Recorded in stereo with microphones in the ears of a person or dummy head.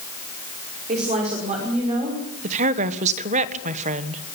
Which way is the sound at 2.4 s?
40° right (ahead or behind).